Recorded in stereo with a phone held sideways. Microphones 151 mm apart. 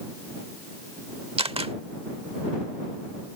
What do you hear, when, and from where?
1.4 s a camera shutter: 40° right (ahead or behind)